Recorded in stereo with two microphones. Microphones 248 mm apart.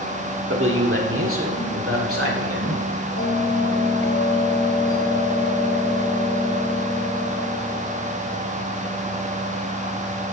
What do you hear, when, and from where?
0.5 s a man speaking: 55° right (ahead or behind), 1.3 m; by 2.8 s 65° right (ahead or behind), 2.5 m
3.2 s a bell: 55° left (ahead or behind), 1.9 m